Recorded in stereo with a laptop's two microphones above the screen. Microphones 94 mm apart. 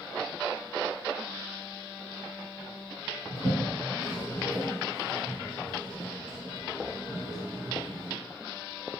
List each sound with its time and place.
3.3 s a toilet flushing: 40° right (ahead or behind), 1.3 m